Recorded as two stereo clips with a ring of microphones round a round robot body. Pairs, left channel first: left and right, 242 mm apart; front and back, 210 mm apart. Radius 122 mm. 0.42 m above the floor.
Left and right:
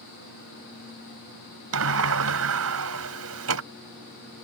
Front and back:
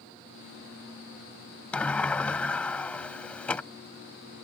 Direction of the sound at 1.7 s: 85° right.